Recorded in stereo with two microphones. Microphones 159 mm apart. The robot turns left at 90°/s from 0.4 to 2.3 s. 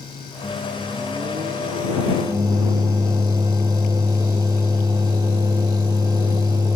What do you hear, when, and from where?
0.4 s a microwave: 15° left; by 6.8 s 155° right